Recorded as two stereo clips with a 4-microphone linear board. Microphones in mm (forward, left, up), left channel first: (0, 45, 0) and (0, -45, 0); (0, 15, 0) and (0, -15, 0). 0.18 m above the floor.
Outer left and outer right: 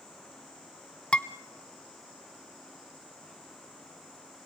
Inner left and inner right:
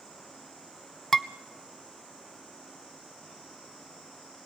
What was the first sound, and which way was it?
Dishes clattering, 10° left (ahead or behind).